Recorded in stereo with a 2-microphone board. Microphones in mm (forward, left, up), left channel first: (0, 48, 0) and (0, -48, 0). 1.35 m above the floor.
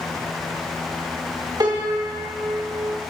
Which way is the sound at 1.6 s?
45° right (ahead or behind).